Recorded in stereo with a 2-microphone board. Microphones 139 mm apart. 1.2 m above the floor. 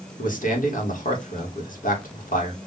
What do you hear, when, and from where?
0.2 s a man speaking: 75° left (ahead or behind), 1.8 m